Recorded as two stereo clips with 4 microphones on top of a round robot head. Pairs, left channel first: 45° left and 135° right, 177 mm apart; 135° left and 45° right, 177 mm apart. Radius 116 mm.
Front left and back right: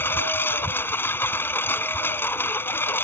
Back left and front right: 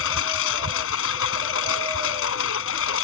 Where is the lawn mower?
125° left.